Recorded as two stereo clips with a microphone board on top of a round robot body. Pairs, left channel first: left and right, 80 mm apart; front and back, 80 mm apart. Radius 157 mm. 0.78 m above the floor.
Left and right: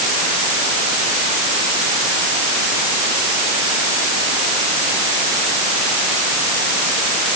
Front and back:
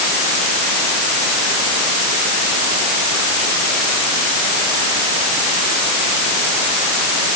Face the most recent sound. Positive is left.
No sound to turn to.